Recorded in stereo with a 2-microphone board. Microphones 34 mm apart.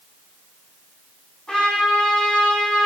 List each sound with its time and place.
1.5 s a trumpet: 20° left (ahead or behind), 1.8 m